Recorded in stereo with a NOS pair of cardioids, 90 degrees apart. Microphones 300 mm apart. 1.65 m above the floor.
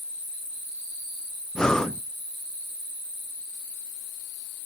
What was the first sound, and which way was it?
Breathing, straight ahead.